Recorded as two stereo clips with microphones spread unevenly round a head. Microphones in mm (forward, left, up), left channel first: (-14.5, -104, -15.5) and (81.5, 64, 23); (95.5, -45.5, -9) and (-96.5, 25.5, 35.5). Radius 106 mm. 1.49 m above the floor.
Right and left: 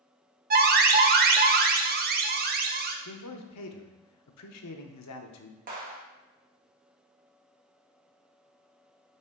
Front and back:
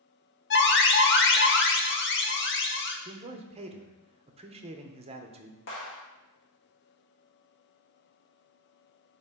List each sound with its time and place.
0.5 s an alarm: 25° left, 0.8 m
3.0 s a man speaking: 140° right, 0.9 m
5.7 s a clap: 20° left, 1.9 m